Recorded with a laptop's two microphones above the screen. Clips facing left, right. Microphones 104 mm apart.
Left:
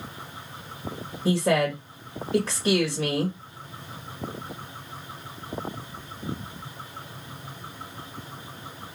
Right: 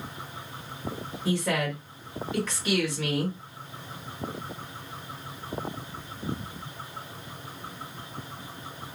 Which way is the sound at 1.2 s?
35° left (ahead or behind).